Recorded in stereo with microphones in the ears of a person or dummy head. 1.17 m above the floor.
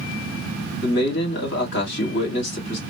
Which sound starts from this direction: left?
A man speaking, at 0.8 s.